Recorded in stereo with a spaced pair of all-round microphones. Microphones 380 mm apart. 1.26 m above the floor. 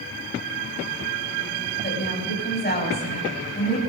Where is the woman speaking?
25° left (ahead or behind), 7 m.